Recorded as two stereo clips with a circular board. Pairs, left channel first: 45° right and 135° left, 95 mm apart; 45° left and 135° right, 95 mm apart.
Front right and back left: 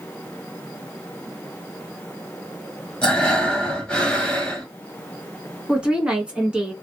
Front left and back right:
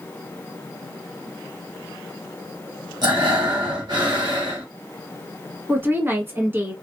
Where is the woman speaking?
155° right, 1.1 m.